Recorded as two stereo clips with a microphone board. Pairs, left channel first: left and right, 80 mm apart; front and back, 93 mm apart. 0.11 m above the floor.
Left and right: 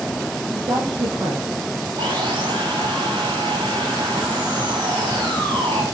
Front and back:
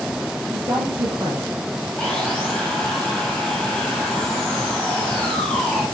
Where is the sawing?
85° right, 6 m.